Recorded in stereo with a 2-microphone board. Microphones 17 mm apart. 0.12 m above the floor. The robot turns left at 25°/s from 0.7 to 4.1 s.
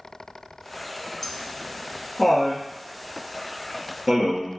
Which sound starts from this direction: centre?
Laughter, at 1.2 s.